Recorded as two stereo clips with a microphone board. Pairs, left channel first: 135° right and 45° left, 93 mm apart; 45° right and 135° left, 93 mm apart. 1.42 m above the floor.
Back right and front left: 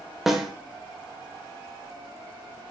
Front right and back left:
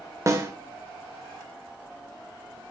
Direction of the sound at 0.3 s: 130° left.